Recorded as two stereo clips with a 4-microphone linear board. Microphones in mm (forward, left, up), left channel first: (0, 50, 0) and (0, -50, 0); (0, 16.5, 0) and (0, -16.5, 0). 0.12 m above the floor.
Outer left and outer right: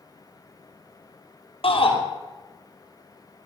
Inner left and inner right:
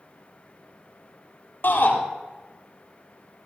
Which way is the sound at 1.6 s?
65° left (ahead or behind).